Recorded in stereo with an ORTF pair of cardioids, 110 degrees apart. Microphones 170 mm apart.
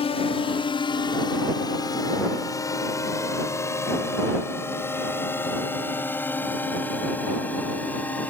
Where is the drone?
35° left; by 8.3 s 10° left.